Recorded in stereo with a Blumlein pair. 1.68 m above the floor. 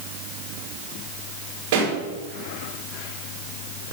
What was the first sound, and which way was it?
A pop, 50° right.